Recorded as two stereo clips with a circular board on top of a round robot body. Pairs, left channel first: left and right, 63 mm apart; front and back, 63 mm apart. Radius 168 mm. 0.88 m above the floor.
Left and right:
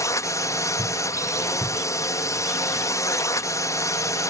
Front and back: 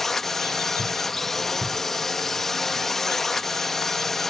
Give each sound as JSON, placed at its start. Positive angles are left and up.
{"t": 0.0, "sound": "a drone", "azimuth_deg": 85}